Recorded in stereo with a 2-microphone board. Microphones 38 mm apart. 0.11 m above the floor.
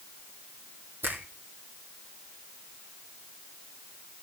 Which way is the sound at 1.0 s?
65° right (ahead or behind).